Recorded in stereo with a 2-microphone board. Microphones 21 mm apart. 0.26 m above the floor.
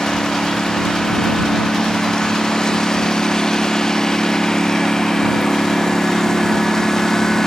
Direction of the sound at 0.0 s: 35° left (ahead or behind).